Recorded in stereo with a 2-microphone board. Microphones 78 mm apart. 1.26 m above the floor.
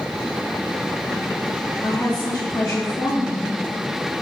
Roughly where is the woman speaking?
Left.